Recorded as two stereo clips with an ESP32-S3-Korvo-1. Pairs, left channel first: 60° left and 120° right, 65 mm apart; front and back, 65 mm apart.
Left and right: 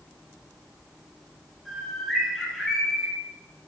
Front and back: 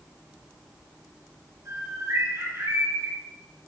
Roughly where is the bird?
Behind left.